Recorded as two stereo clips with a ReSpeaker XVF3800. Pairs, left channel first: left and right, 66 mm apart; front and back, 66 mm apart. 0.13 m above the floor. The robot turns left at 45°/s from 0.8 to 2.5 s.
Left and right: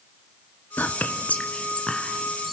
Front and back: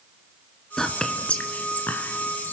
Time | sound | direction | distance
0.8 | whispering | 75° left | 1.9 m